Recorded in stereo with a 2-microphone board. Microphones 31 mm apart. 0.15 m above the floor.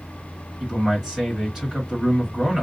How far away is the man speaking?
About 2 m.